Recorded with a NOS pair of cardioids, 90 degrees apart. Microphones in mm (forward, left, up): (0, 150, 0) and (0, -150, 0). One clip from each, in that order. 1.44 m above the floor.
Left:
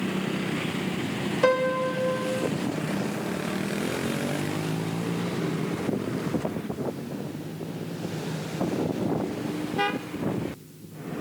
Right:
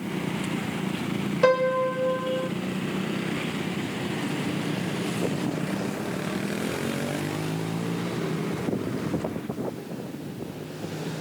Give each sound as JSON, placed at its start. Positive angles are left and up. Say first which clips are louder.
{"t": 1.4, "sound": "a piano", "louder": "right 2 dB", "azimuth_deg": -15, "distance_m": 0.5}